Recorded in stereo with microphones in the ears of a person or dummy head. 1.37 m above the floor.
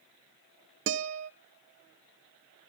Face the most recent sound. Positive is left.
turn(degrees=-55)  # may be behind; listen again after turning